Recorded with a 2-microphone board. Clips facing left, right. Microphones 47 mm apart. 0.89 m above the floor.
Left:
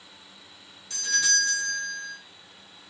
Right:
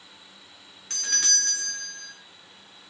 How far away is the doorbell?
About 2 m.